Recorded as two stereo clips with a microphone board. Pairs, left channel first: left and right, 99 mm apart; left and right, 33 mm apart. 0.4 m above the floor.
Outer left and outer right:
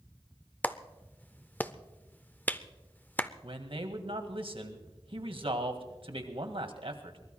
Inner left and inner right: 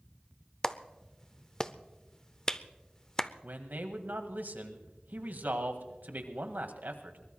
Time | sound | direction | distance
0.6 | a clap | 15° left (ahead or behind) | 0.6 m
3.4 | a man speaking | 65° right (ahead or behind) | 1.8 m